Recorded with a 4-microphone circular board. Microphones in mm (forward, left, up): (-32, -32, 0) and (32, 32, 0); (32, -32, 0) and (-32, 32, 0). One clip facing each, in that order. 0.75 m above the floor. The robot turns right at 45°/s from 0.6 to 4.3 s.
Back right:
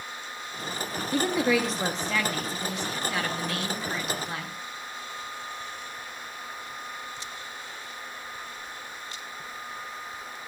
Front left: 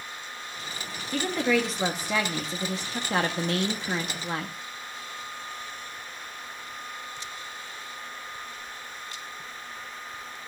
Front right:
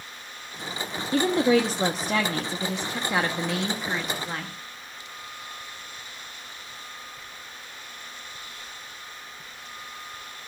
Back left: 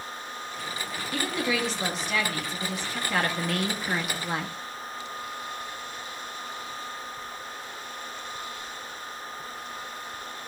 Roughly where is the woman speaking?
Right.